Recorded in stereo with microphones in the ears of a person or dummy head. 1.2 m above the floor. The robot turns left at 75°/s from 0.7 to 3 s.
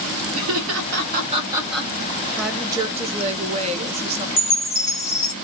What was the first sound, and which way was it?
Laughter, 80° right.